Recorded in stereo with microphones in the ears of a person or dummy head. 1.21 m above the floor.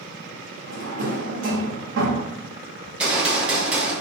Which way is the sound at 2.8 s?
5° right (ahead or behind).